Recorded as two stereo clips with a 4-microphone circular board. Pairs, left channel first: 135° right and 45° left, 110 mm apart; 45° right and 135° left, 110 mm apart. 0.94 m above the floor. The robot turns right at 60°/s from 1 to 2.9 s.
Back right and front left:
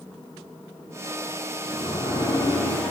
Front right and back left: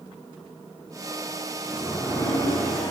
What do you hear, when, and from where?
1.6 s a sliding door: 140° right, 1.1 m; by 2.9 s 65° right, 1.1 m